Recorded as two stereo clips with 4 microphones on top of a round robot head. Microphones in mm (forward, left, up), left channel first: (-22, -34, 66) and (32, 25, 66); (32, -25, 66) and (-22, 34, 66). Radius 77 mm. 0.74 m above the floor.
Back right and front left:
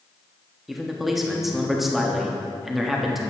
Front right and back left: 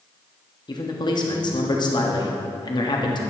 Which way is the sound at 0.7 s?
40° right.